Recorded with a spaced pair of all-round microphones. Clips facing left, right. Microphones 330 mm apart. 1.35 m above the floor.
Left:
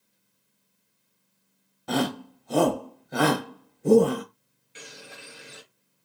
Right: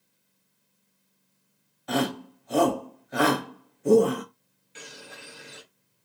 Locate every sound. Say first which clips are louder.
1.9 s a shout: even; 50° left (ahead or behind), 1.0 m
4.8 s a bird: even; centre (ahead or behind), 0.9 m